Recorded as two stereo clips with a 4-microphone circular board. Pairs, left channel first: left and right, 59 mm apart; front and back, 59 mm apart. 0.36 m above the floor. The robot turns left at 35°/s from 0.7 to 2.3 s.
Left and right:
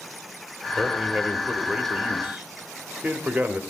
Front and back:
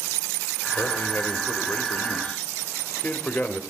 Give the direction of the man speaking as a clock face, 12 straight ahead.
12 o'clock.